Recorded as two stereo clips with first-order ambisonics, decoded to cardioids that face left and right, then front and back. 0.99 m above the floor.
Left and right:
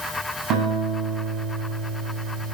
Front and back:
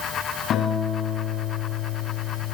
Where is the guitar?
55° right, 9.5 m.